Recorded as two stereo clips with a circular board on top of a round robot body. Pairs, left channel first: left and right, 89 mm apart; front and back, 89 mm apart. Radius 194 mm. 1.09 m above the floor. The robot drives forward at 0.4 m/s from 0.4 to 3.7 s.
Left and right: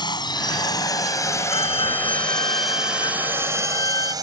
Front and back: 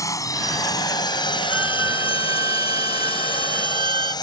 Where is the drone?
55° left; by 4.2 s 45° right.